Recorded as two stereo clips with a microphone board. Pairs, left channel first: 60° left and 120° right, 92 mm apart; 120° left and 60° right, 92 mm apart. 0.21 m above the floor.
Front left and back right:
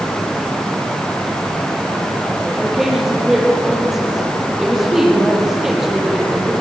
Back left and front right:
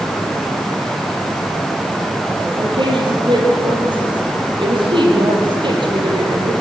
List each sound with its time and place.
2.6 s a woman speaking: 35° right, 6 m